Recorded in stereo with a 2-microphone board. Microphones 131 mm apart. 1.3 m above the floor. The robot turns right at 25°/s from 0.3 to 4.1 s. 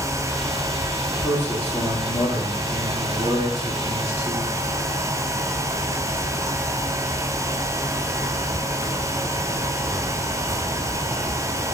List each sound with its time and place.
1.2 s a man speaking: 160° left, 3.5 m; by 4.5 s 130° right, 3.5 m